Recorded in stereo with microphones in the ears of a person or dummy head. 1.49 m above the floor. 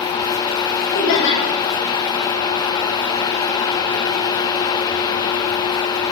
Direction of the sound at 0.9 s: 70° left (ahead or behind).